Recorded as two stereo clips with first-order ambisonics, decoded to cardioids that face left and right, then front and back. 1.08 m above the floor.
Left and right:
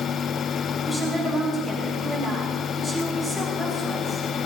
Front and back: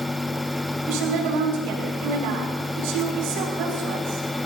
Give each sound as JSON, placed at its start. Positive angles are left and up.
{"t": 0.8, "sound": "a woman speaking", "azimuth_deg": 175, "distance_m": 6.0}